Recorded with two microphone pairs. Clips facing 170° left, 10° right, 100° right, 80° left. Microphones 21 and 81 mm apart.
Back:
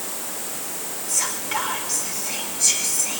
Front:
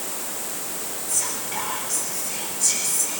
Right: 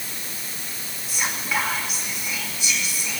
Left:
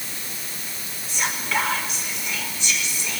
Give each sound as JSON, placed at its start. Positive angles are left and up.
{"t": 1.1, "sound": "whispering", "azimuth_deg": 180, "distance_m": 2.5}